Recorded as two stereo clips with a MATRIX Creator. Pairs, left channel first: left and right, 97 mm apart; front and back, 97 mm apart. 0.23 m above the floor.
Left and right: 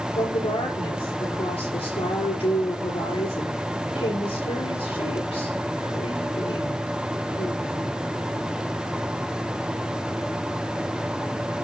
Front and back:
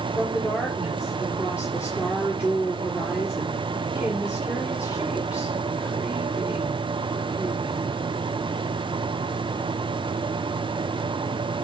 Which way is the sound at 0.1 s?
105° left.